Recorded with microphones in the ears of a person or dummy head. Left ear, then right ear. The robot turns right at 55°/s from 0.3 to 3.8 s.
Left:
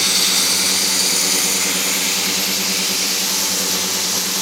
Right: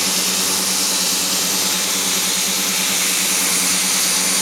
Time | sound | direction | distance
0.0 | running water | 65° left | 2.5 m